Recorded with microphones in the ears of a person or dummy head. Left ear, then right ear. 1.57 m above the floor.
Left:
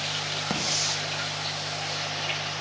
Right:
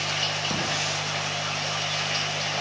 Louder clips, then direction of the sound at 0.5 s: Even; 70° left (ahead or behind).